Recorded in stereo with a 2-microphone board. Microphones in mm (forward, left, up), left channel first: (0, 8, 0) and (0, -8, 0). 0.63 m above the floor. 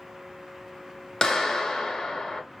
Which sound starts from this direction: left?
A clap, at 1.2 s.